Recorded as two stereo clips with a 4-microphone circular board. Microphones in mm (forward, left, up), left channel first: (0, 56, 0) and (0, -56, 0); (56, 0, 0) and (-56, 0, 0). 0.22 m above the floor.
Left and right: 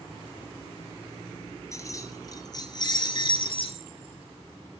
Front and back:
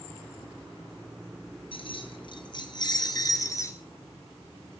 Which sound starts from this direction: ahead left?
Keys jangling, at 1.7 s.